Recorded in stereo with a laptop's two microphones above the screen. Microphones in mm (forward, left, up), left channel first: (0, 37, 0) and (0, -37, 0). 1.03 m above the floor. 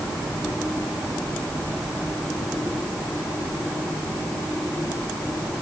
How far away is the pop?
I don't hear a pop.